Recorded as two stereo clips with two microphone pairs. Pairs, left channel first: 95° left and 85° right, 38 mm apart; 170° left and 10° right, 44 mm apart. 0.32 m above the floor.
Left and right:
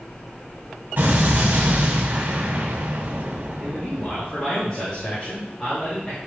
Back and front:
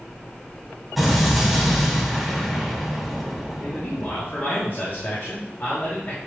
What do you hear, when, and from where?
1.0 s an explosion: 95° right, 1.8 m
3.6 s a man speaking: 170° left, 2.5 m